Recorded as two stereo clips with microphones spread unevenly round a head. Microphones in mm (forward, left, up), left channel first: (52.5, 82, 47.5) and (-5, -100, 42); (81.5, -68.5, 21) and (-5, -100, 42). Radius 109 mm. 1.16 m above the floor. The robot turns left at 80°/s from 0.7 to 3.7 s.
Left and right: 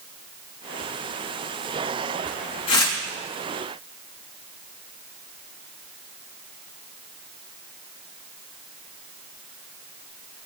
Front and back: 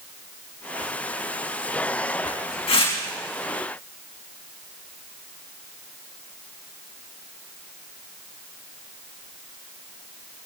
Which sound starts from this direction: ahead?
Tearing paper, at 2.7 s.